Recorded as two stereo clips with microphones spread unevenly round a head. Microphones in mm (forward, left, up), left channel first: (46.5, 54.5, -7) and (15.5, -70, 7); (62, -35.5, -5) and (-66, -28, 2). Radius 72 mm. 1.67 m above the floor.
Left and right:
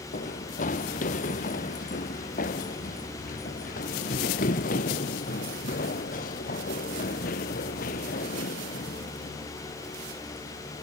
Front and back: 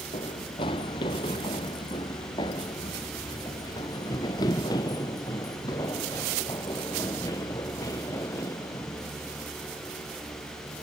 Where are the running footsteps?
55° left; by 10.8 s 70° left.